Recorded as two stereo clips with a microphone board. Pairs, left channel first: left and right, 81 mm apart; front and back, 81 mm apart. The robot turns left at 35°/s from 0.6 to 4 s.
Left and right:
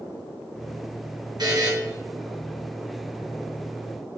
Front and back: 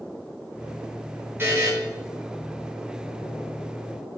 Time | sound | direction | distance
1.4 | a buzzer | 115° right | 4 m